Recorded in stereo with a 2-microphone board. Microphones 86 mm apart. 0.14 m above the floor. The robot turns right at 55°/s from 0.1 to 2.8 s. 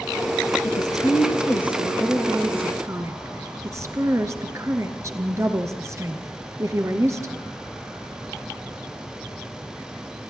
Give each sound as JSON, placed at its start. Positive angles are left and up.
{"t": 0.6, "sound": "a woman speaking", "azimuth_deg": 100, "distance_m": 1.8}